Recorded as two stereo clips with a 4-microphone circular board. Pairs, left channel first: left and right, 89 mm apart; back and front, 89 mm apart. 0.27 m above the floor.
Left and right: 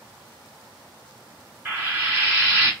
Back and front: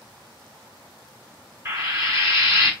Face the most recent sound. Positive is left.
turn(degrees=-40)